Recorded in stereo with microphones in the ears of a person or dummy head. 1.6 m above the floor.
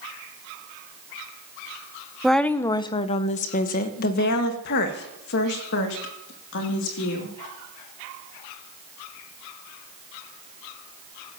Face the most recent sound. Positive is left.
turn(degrees=75)  # may be behind; listen again after turning